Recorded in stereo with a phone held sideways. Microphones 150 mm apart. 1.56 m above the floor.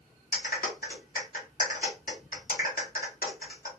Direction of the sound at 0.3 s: 75° left (ahead or behind).